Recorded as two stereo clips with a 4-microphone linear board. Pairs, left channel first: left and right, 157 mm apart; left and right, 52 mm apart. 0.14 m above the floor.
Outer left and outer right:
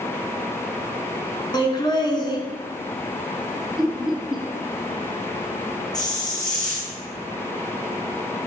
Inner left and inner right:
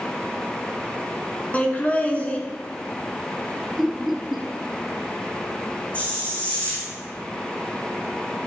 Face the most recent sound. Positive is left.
turn(degrees=25)  # may be behind; listen again after turning